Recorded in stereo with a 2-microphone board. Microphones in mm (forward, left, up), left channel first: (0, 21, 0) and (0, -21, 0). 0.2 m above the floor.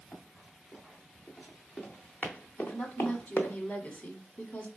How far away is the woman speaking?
About 1.5 m.